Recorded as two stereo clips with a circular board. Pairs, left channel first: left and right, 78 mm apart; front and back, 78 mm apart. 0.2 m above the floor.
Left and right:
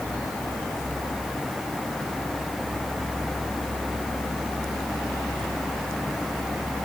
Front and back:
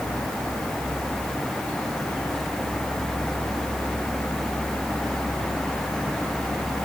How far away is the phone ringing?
I don't hear a phone ringing.